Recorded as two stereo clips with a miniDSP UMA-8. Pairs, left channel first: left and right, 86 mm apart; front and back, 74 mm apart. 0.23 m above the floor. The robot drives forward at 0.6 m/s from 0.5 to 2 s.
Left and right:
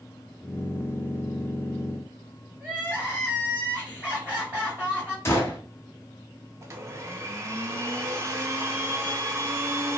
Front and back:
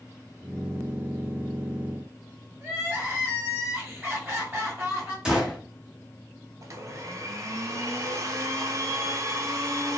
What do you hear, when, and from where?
2.6 s crying: 140° right, 1.8 m
5.2 s a gunshot: 110° left, 0.8 m
6.6 s a blender: 140° right, 0.5 m